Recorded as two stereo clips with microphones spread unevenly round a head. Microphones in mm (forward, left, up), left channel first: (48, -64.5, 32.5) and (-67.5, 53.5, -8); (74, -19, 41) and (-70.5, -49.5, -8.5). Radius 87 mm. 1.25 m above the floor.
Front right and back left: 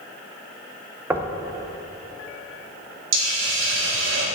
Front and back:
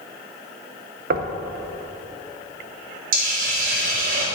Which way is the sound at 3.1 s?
145° left.